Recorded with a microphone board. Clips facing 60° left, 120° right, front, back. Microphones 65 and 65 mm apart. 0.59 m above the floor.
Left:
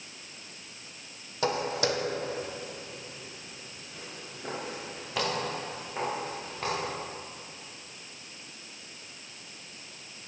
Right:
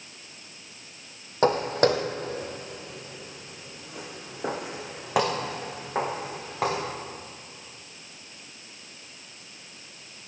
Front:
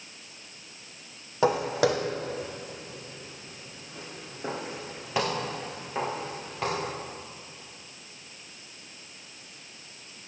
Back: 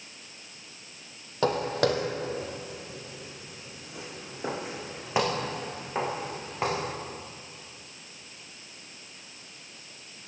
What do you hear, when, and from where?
1.4 s footsteps: 75° right, 1.6 m; by 6.8 s 115° right, 4 m